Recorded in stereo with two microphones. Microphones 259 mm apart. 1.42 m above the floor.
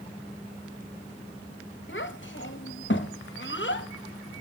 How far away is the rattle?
No rattle in this recording.